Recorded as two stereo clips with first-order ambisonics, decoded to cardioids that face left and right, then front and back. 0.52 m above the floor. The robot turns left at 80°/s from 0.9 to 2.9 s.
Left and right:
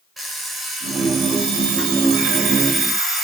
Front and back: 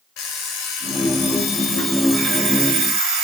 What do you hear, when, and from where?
0.2 s an alarm clock: 10° right, 1.3 m; by 3.2 s 170° right, 1.3 m